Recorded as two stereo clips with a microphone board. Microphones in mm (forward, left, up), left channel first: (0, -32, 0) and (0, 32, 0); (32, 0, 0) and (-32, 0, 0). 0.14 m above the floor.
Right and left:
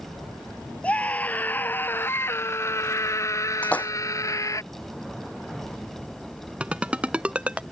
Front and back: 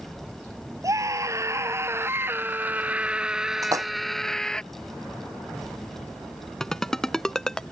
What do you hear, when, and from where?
0.8 s a scream: 160° right; by 4.6 s 75° right
3.6 s a splash: 160° right
6.6 s a ringtone: 65° left